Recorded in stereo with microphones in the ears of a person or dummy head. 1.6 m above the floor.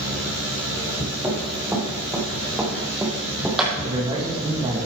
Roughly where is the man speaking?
Right.